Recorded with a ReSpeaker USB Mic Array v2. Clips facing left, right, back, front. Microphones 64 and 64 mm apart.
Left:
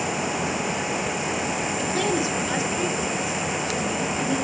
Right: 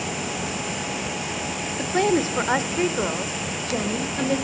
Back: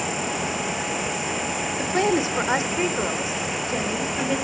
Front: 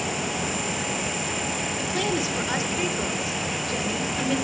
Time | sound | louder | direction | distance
1.8 | a woman speaking | right 6 dB, back 6 dB | 140° right | 1.7 m